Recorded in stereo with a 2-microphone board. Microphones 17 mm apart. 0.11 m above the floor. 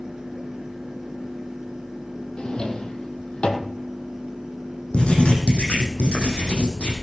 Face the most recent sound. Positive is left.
turn(degrees=70)  # may be behind; listen again after turning